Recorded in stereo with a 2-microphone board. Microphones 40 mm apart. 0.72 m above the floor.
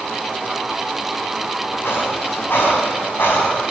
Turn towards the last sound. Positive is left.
turn(degrees=65)  # may be behind; listen again after turning